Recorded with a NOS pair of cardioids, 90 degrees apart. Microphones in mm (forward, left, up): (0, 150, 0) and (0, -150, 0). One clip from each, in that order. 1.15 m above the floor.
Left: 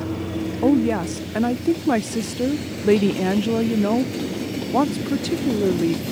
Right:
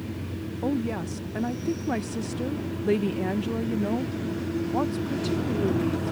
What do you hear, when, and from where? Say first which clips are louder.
0.6 s a woman speaking: left 10 dB; 30° left